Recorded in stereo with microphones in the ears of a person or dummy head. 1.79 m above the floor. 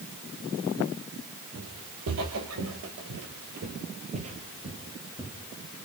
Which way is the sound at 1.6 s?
60° right (ahead or behind).